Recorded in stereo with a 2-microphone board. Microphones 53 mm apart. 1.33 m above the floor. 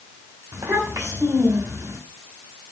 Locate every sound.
0.5 s a child speaking: 75° right (ahead or behind), 3 m